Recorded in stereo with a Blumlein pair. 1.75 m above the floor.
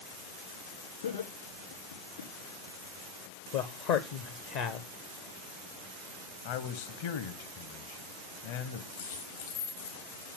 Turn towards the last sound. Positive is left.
turn(degrees=60)